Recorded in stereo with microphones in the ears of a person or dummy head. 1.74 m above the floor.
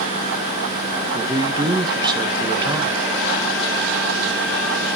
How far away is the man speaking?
About 2 m.